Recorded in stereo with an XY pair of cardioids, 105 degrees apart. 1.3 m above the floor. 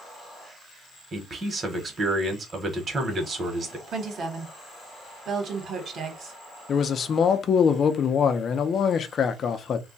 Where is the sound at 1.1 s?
35° right, 1.1 m.